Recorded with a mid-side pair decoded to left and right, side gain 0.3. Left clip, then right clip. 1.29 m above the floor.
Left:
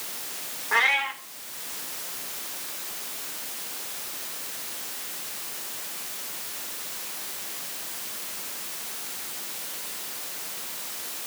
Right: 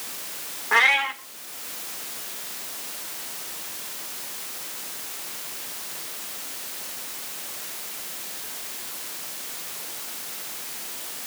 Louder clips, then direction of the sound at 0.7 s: Right 3 dB; 45° right.